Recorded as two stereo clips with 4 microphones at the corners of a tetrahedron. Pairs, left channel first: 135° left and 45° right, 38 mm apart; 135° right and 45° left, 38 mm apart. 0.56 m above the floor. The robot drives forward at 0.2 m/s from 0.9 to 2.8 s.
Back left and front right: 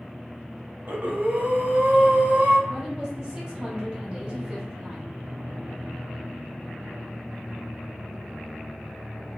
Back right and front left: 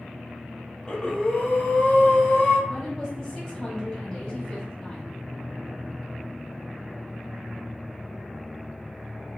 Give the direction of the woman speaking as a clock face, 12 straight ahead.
3 o'clock.